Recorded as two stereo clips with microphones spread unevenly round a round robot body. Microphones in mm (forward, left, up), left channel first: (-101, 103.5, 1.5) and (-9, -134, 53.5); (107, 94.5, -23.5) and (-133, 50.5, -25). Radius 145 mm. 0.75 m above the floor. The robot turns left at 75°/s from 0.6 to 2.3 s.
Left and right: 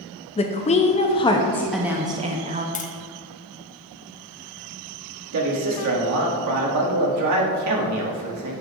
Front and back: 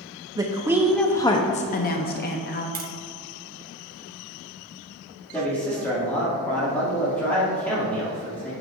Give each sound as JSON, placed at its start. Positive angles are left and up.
{"t": 0.4, "sound": "a woman speaking", "azimuth_deg": 125, "distance_m": 0.6}
{"t": 2.8, "sound": "tapping", "azimuth_deg": 150, "distance_m": 0.9}
{"t": 5.3, "sound": "a man speaking", "azimuth_deg": -75, "distance_m": 1.7}